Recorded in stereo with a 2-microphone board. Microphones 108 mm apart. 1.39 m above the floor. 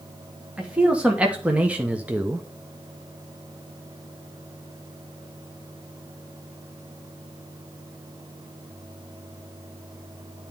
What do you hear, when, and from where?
0.6 s a man speaking: 10° right (ahead or behind), 1.6 m; by 2.4 s 15° right (ahead or behind), 0.7 m